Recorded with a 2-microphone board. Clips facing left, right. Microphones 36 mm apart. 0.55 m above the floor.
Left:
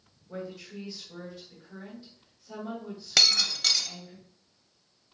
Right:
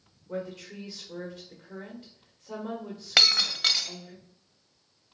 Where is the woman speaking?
55° right (ahead or behind), 1.3 m.